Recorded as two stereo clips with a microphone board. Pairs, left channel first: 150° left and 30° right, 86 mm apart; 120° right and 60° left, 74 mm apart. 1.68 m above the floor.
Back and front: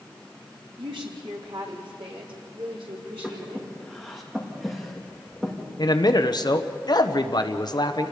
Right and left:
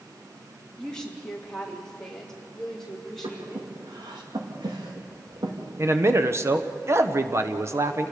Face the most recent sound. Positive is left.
turn(degrees=115)